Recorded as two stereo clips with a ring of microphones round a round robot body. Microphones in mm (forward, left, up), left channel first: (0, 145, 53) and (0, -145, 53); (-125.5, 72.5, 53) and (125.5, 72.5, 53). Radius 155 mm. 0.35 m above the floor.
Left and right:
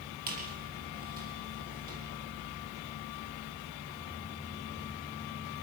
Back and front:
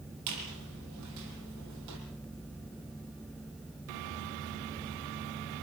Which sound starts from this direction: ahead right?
A squeak, at 0.3 s.